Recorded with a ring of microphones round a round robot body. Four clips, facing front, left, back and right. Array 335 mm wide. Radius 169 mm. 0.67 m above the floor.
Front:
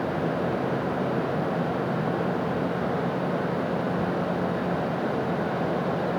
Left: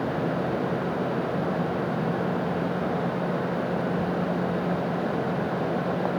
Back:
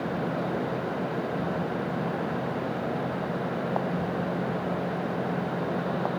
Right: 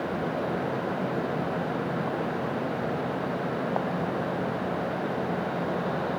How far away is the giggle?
No giggle in this recording.